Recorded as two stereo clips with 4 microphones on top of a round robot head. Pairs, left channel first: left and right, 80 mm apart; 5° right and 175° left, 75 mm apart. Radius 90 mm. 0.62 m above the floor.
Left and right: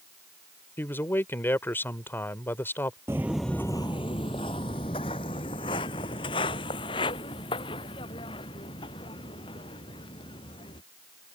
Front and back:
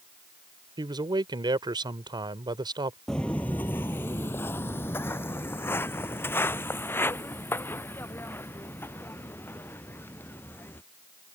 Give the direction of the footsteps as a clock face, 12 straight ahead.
3 o'clock.